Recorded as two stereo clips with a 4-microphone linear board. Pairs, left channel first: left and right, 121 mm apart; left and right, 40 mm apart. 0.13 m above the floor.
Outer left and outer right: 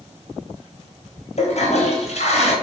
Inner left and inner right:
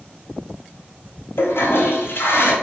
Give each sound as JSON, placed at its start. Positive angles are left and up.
{"t": 1.4, "sound": "a toilet flushing", "side_deg": 65, "distance_m": 0.9}